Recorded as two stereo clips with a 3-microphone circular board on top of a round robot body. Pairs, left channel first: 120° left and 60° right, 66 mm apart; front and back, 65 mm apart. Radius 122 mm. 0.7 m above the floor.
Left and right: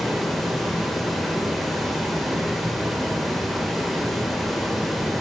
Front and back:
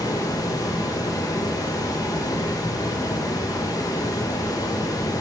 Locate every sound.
0.0 s running water: 30° left, 1.5 m